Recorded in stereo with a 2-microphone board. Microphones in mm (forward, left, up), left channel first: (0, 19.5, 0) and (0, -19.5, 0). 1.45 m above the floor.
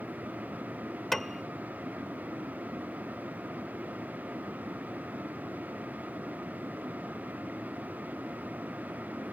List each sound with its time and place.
1.1 s a piano: 10° left (ahead or behind)